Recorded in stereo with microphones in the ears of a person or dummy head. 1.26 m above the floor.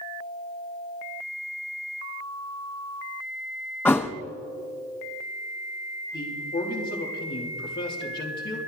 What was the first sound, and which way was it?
A thud, 10° left (ahead or behind).